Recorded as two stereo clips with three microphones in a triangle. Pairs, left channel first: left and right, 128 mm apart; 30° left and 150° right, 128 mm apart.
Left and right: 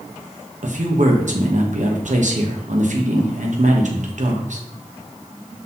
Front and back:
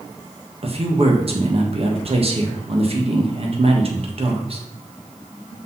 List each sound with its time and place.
0.6 s a man speaking: 110° right, 1.6 m